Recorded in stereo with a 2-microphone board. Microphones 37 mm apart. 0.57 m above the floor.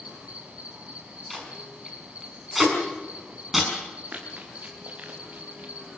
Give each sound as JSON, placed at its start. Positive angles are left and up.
{"t": 0.0, "sound": "an insect", "side_deg": -35, "distance_m": 3.5}
{"t": 1.3, "sound": "tape being pulled", "side_deg": -5, "distance_m": 6.5}
{"t": 4.1, "sound": "running footsteps", "side_deg": -40, "distance_m": 5.5}